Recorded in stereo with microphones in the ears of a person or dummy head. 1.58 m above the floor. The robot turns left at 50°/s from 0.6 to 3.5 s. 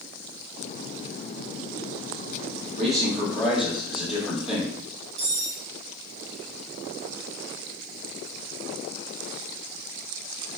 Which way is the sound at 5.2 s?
35° right (ahead or behind).